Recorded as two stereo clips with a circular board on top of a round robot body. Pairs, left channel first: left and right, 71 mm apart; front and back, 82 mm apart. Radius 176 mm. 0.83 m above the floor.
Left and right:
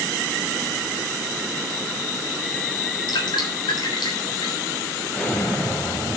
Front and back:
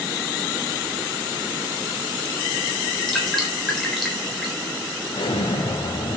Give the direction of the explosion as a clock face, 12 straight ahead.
11 o'clock.